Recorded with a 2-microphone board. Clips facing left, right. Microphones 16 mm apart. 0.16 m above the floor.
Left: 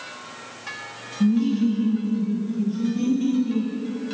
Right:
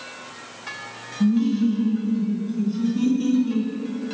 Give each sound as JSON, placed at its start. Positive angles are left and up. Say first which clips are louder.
{"t": 1.2, "sound": "laughter", "louder": "even", "side_deg": -10, "distance_m": 1.0}